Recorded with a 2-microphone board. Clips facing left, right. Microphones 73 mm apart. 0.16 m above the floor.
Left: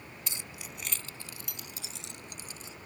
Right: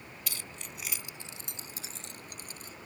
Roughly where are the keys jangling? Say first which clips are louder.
Even; left.